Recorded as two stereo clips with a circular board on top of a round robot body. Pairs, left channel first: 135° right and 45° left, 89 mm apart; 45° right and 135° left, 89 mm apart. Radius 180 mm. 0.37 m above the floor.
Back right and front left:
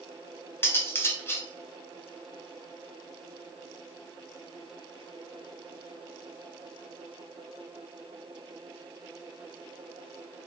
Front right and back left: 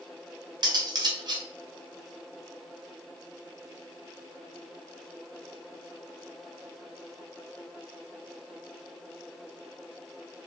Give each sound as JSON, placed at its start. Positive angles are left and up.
{"t": 0.6, "sound": "cutlery clinking", "azimuth_deg": 165, "distance_m": 0.8}